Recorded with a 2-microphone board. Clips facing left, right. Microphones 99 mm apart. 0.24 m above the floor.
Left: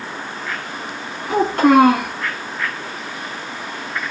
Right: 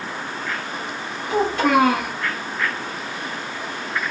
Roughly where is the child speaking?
Left.